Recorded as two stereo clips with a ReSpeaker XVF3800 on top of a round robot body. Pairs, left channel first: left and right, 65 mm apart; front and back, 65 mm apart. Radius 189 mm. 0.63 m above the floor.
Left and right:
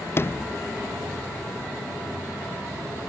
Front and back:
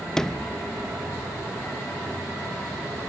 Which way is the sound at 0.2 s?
80° left.